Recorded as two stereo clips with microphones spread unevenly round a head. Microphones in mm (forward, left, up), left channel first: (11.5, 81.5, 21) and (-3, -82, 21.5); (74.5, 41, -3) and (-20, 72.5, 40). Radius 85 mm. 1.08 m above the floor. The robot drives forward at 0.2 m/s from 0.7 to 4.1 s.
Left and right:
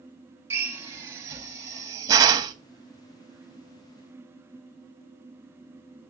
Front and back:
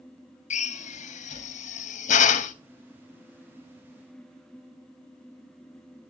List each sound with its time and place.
0.5 s a drill: 20° right, 1.0 m; by 2.5 s 30° right, 0.7 m